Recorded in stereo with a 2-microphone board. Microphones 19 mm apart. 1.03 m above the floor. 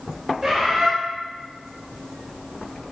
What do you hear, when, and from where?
0.4 s a bird: 30° right (ahead or behind), 1.1 m